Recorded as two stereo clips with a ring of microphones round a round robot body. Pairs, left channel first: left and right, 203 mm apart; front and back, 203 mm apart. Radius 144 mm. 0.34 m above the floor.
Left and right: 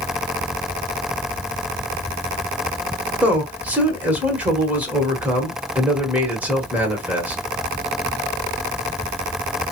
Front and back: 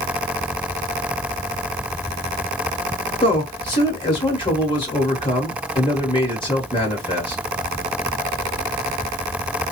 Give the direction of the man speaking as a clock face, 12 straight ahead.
1 o'clock.